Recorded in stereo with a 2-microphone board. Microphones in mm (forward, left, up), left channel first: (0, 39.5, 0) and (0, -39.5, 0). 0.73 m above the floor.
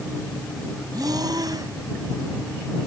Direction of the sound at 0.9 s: 55° right (ahead or behind).